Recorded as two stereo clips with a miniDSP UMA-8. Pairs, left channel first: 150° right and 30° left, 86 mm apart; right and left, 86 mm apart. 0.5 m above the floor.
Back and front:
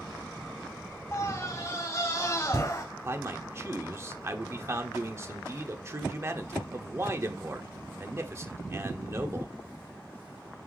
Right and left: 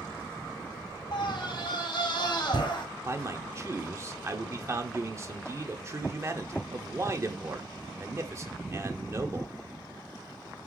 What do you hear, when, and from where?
1.1 s a scream: 95° right, 3 m
3.0 s a man speaking: 65° left, 1.2 m